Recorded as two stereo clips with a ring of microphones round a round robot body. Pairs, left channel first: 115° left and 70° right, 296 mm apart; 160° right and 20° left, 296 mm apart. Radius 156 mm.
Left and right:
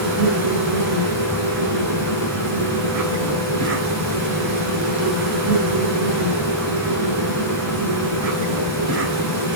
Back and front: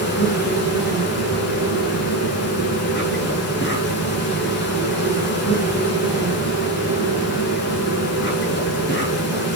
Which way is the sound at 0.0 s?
100° right.